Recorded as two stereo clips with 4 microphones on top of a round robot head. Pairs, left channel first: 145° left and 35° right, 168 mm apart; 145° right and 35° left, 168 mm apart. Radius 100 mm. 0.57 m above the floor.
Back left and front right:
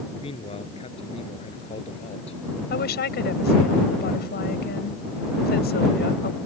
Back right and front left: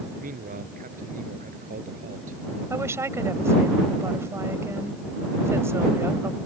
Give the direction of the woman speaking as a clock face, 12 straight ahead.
8 o'clock.